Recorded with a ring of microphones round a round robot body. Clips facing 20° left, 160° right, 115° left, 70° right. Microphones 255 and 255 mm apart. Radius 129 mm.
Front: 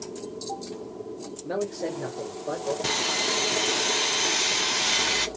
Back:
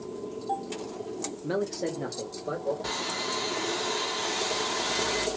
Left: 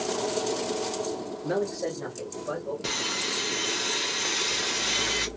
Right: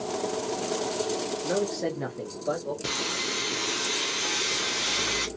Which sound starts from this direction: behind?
A man speaking, at 1.4 s.